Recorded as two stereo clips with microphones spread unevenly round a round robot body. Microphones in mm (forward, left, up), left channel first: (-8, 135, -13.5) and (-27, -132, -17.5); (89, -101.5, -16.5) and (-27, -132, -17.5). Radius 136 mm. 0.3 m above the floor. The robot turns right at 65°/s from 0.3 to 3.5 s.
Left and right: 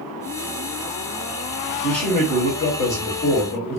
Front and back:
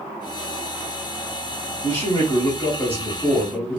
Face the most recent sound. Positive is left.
turn(degrees=105)